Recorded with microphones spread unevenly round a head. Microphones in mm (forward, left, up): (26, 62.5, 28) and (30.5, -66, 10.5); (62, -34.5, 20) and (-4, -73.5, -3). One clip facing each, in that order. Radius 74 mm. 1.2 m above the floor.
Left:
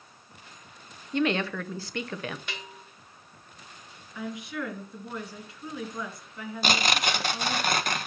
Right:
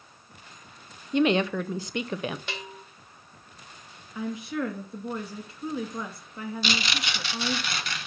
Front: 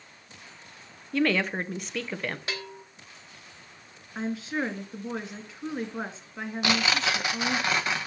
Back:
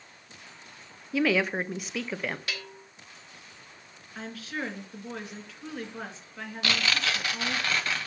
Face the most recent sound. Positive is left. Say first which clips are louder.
# left 6 dB, front 3 dB
turn(degrees=120)